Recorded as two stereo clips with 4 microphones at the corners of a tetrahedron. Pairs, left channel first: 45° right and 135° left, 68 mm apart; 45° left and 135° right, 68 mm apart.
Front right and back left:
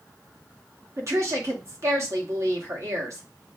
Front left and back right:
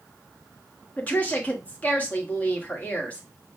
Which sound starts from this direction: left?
A woman speaking, at 1.0 s.